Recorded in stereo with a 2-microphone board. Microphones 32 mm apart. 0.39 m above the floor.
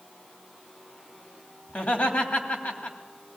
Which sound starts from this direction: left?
Laughter, at 1.7 s.